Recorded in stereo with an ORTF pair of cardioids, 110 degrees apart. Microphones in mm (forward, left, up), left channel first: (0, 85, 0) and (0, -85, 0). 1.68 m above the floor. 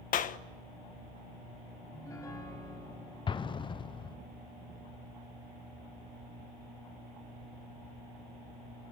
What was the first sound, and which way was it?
A clap, 55° left.